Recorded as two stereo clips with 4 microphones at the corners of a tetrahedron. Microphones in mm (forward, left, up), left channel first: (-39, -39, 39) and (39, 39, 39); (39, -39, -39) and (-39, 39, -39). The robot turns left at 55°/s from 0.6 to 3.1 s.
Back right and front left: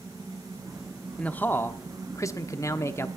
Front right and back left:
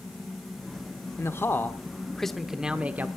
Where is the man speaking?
70° right, 0.9 m; by 3.1 s 175° right, 0.9 m.